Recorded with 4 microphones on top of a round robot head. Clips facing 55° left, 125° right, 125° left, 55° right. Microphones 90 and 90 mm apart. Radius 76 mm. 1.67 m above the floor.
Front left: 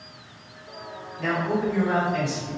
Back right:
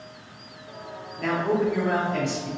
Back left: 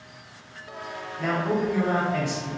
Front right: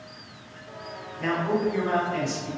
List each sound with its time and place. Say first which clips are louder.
1.2 s a man speaking: back right 1 dB, even; 155° right, 1.8 m